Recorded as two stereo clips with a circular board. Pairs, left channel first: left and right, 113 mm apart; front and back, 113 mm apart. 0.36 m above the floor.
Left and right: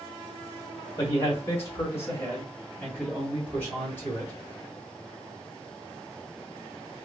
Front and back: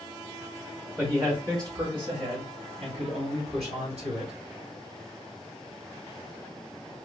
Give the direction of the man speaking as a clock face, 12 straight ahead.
8 o'clock.